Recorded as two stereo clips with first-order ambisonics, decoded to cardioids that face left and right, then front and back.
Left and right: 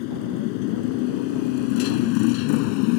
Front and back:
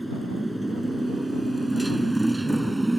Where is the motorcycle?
95° left.